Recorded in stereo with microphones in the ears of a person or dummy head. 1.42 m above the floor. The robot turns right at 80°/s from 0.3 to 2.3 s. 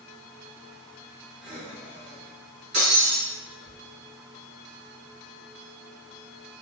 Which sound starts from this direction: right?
Breaking glass, at 2.7 s.